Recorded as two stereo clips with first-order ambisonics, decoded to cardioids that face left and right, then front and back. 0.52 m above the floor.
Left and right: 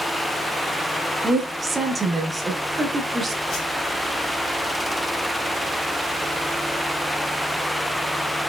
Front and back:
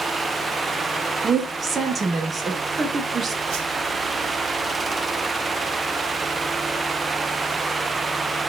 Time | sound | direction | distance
1.2 | a woman speaking | 140° right | 0.7 m
3.5 | a whoosh | 140° left | 1.0 m